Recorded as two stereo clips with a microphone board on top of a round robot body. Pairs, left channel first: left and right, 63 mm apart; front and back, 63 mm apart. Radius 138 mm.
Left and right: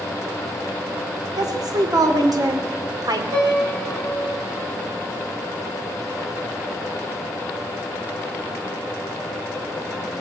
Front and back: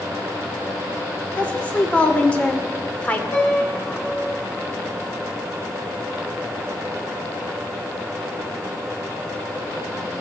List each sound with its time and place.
1.4 s a woman speaking: 70° right, 2 m
3.3 s a piano: 60° right, 4.5 m